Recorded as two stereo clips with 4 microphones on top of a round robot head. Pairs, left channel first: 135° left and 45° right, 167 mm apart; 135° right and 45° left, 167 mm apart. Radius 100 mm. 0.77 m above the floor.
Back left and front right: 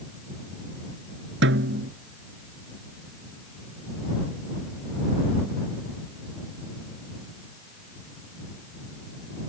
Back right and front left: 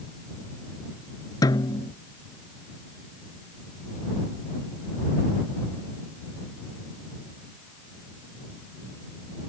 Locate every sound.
1.4 s a snare drum: 65° right